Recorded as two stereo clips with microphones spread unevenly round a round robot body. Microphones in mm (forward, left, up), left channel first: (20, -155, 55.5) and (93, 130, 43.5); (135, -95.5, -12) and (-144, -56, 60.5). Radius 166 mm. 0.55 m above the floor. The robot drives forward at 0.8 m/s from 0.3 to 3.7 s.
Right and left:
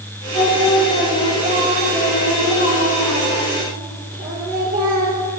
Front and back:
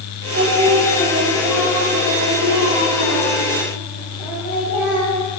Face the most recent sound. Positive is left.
turn(degrees=140)